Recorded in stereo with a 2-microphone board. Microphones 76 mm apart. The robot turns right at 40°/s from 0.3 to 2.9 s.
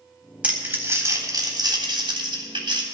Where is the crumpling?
165° right, 3.5 m; by 2.8 s 65° right, 3.5 m.